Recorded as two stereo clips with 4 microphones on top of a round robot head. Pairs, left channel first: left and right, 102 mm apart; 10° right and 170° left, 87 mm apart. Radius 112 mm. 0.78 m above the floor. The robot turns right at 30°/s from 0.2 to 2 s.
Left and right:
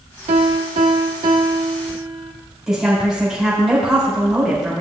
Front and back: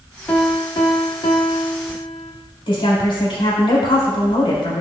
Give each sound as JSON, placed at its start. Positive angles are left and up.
{"t": 0.3, "sound": "a piano", "azimuth_deg": -75, "distance_m": 0.8}
{"t": 2.7, "sound": "a woman speaking", "azimuth_deg": -5, "distance_m": 3.5}